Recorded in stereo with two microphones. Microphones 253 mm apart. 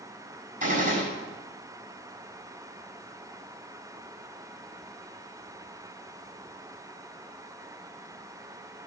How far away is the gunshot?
About 7 m.